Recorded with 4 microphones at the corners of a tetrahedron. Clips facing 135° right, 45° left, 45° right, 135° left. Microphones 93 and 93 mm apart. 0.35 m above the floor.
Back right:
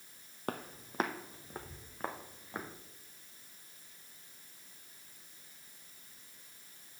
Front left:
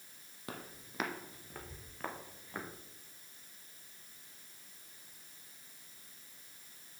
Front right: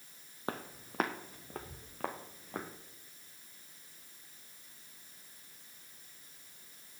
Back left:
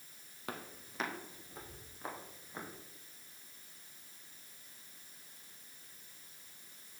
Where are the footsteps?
100° right, 1.0 m; by 2.7 s 60° right, 2.5 m.